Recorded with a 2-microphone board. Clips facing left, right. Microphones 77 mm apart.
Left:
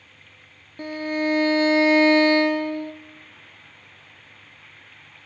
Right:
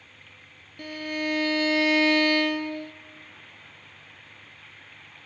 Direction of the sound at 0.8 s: 30° left (ahead or behind).